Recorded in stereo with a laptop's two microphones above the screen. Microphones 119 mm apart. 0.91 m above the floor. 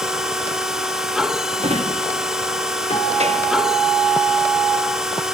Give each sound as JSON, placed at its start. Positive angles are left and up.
{"t": 0.0, "sound": "a machine running", "side_deg": -5, "distance_m": 0.7}
{"t": 1.6, "sound": "a drawer", "side_deg": -60, "distance_m": 0.5}
{"t": 2.9, "sound": "a guitar", "side_deg": 60, "distance_m": 1.6}